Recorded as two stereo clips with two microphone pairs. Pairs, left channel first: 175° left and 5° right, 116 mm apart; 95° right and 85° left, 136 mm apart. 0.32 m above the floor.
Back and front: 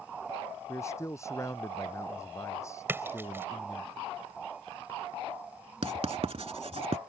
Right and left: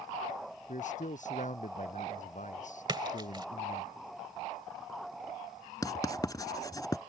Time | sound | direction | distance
0.7 | a man speaking | 120° right | ?
2.9 | a splash | 55° left | ?
5.8 | writing | 35° right | ?